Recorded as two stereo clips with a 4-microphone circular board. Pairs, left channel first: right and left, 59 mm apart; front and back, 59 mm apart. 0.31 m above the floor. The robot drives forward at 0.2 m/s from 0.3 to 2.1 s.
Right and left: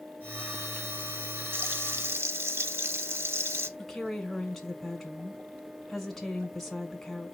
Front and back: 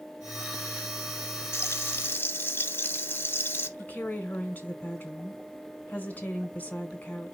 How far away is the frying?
About 0.7 m.